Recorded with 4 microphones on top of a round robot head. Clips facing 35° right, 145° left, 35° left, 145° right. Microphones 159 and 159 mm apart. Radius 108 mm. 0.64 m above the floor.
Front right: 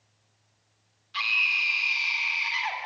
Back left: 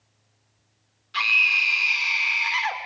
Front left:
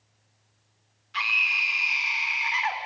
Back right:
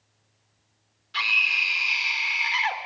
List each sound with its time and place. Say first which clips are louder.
1.1 s a scream: back left 5 dB, even; 165° left, 2.5 m